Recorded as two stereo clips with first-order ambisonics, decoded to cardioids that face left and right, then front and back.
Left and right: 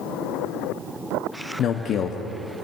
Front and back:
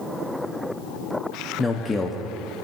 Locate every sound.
1.6 s a man speaking: 75° left, 0.6 m